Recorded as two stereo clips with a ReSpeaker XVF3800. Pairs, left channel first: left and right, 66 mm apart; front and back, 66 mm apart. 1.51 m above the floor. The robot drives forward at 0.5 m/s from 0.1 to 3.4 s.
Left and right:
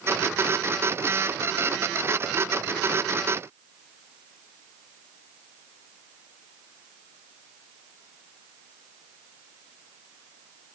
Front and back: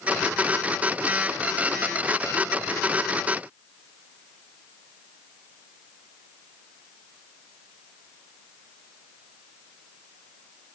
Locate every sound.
Only background noise.